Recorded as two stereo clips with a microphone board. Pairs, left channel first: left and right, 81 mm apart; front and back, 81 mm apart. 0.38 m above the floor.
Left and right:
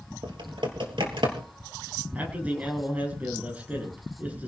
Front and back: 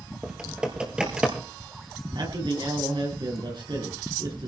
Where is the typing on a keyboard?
100° right, 3 m.